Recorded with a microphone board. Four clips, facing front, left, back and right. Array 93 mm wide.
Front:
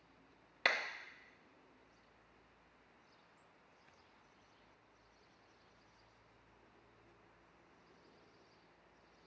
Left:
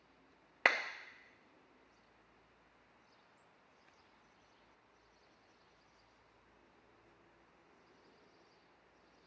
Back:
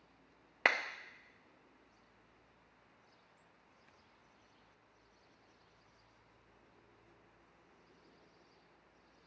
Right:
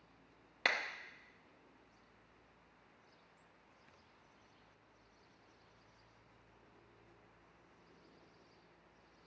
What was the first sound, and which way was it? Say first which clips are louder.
A clap: left 4 dB, back 4 dB; 135° left.